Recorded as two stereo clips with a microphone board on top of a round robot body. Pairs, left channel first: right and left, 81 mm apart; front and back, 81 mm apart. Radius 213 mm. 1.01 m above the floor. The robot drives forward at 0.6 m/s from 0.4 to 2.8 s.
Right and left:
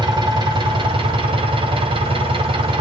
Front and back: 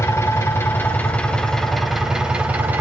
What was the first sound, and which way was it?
An engine running, 60° left.